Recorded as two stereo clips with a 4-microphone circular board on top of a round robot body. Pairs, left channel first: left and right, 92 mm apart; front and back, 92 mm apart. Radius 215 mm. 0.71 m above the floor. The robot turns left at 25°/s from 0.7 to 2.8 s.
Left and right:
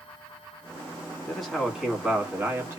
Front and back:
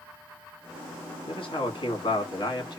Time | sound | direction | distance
1.3 | a man speaking | 5° left | 1.6 m